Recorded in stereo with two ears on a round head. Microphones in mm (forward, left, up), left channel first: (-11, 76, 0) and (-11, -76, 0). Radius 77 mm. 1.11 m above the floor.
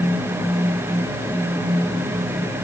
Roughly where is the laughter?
No laughter in this recording.